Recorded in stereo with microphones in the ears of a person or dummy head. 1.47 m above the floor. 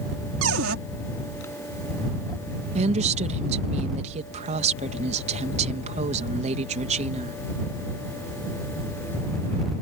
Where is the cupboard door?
85° right.